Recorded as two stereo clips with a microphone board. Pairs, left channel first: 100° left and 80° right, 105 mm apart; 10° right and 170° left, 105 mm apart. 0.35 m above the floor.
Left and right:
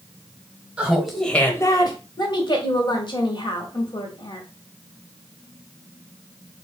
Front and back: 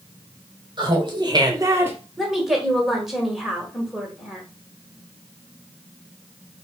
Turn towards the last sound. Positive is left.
turn(degrees=85)